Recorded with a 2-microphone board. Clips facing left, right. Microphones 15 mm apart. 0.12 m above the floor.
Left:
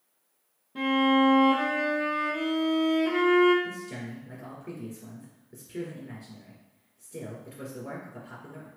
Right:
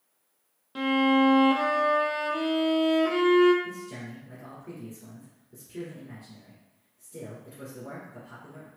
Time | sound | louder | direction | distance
0.8 | a violin | even | 80° right | 0.7 m
3.6 | a man speaking | left 1 dB | 20° left (ahead or behind) | 1.8 m